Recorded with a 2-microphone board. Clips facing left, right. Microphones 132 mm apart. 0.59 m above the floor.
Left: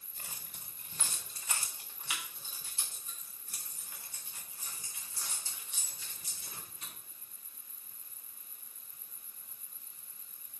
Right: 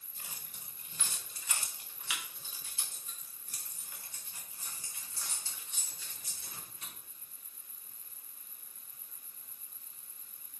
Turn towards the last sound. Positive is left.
turn(degrees=15)  # may be behind; listen again after turning